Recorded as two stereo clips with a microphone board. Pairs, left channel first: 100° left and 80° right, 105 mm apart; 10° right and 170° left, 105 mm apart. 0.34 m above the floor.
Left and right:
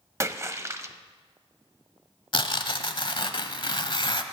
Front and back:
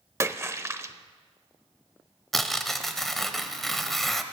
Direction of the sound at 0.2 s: 130° right.